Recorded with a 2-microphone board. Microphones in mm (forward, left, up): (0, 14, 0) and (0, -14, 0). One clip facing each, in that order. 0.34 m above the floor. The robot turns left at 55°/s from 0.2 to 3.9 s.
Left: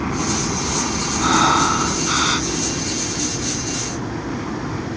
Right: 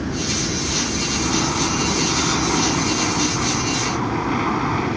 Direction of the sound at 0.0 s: 75° left.